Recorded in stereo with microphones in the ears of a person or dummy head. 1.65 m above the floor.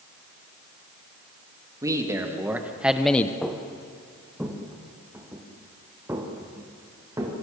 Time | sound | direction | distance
1.8 | a man speaking | 15° right (ahead or behind) | 3 m
3.4 | footsteps | 5° left (ahead or behind) | 3.5 m